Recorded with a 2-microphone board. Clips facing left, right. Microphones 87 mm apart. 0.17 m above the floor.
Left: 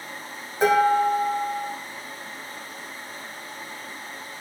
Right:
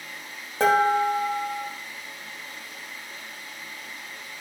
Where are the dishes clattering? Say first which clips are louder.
Left 1 dB; 80° right, 4.5 m.